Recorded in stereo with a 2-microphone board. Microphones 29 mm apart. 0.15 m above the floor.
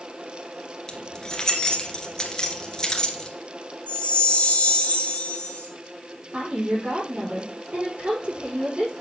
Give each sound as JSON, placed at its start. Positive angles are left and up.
{"t": 0.9, "sound": "keys jangling", "side_deg": 25, "distance_m": 1.8}
{"t": 3.9, "sound": "a chime", "side_deg": 50, "distance_m": 2.5}
{"t": 6.3, "sound": "a woman speaking", "side_deg": -45, "distance_m": 7.0}